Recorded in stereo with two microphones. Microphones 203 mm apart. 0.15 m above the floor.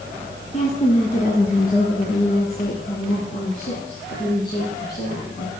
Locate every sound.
0.5 s a woman speaking: 35° left (ahead or behind), 1.4 m; by 5.5 s 55° left (ahead or behind), 4 m